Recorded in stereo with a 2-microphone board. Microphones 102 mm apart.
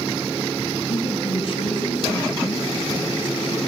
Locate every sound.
0.9 s a woman speaking: 50° left (ahead or behind), 4 m